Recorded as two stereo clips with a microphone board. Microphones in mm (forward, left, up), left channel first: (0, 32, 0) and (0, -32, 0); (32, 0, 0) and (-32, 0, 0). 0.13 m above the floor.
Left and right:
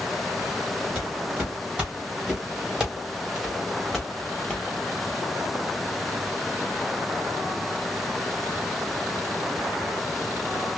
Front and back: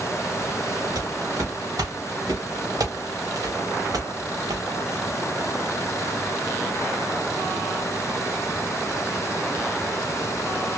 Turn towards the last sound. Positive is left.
turn(degrees=175)